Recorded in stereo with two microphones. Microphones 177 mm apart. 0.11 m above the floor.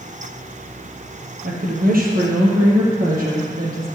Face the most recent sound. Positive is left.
turn(degrees=-55)  # may be behind; listen again after turning